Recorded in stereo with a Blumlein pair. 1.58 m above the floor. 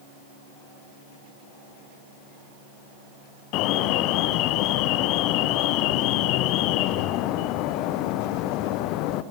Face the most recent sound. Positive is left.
turn(degrees=40)